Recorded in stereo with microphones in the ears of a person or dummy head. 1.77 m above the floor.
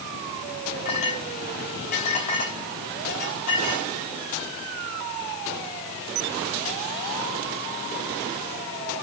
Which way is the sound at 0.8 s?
50° left (ahead or behind).